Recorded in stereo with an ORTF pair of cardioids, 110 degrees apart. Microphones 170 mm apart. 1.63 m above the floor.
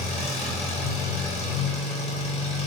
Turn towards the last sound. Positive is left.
turn(degrees=35)